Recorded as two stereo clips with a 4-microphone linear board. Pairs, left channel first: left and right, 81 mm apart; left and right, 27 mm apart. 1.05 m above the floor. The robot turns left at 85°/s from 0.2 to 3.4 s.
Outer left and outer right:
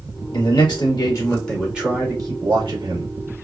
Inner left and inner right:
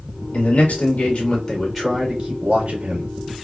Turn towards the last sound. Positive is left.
turn(degrees=-150)